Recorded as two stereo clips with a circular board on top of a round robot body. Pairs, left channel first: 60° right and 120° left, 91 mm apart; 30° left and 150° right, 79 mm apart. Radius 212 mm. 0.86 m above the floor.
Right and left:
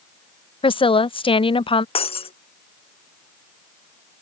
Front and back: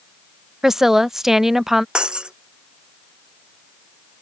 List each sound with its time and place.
0.6 s a woman speaking: 65° right
1.9 s breaking glass: 70° right